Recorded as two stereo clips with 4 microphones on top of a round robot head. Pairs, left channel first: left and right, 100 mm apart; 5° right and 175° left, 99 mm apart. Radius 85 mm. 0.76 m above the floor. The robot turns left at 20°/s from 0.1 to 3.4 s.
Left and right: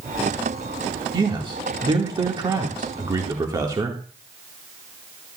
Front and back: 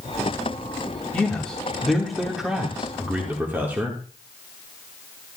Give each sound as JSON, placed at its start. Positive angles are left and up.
{"t": 1.1, "sound": "a man speaking", "azimuth_deg": -75, "distance_m": 1.3}